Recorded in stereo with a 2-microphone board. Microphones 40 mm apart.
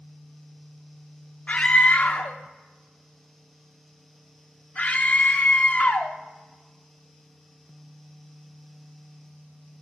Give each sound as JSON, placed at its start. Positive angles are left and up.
{"t": 1.5, "sound": "a scream", "side_deg": 30, "distance_m": 0.5}